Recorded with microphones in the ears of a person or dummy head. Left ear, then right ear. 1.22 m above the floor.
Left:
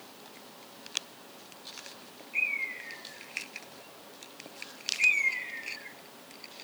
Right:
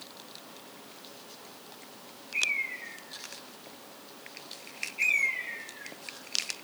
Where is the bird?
10° right (ahead or behind), 1.9 m.